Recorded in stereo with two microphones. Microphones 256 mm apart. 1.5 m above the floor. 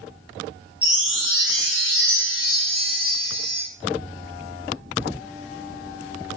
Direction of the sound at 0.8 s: 40° left (ahead or behind).